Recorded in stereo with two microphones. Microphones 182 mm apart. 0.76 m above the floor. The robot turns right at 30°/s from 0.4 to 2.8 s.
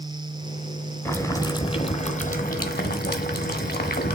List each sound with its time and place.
1.1 s boiling: 10° left, 1.5 m; by 4.2 s 65° left, 1.5 m